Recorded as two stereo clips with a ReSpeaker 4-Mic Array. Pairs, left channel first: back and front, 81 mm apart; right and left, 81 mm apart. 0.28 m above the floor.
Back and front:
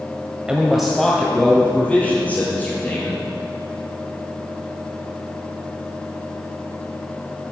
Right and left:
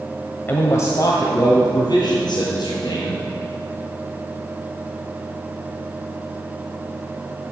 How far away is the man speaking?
About 1.3 m.